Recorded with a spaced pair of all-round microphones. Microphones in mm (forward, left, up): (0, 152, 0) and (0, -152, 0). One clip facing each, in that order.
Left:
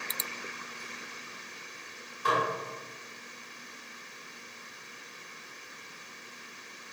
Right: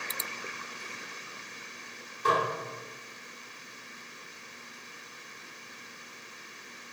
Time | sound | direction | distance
2.2 | dishes clattering | 45° right (ahead or behind) | 3 m